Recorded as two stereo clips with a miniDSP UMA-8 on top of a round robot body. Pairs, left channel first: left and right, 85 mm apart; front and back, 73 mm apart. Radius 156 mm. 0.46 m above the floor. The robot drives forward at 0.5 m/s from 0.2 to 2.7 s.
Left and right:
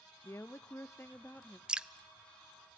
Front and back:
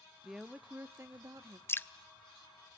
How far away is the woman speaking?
About 0.7 m.